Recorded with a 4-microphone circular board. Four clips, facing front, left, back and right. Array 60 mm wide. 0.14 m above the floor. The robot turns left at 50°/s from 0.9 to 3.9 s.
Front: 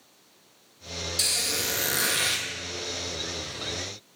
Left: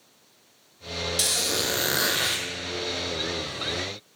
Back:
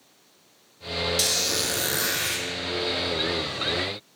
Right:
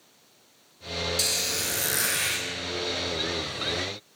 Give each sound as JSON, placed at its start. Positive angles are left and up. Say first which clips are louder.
{"t": 1.2, "sound": "a squeak", "louder": "left 3 dB, back 4 dB", "azimuth_deg": 125, "distance_m": 0.6}